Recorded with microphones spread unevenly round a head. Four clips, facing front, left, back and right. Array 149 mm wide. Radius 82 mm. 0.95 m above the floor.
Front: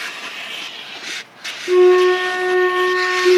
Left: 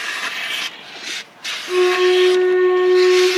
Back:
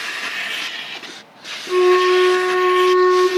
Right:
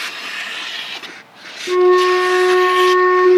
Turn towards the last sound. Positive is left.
turn(degrees=-110)